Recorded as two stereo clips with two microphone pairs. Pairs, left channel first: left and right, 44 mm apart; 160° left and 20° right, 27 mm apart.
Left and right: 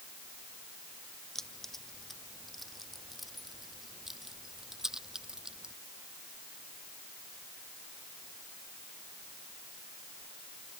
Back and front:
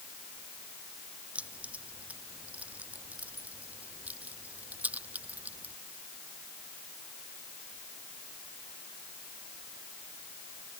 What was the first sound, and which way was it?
Keys jangling, 10° left.